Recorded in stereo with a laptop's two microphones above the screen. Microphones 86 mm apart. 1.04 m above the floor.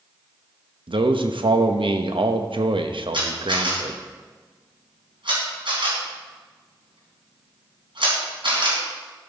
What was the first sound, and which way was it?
A man speaking, 80° right.